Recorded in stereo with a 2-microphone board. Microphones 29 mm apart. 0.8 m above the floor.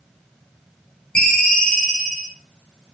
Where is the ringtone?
35° left (ahead or behind), 1.4 m.